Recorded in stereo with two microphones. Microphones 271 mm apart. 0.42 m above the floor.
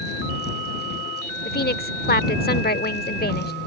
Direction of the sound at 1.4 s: 35° left (ahead or behind).